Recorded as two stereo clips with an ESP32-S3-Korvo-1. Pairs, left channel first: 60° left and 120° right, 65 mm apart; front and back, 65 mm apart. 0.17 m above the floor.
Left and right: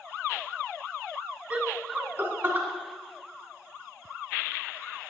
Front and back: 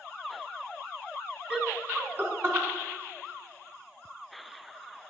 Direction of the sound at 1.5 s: 145° right.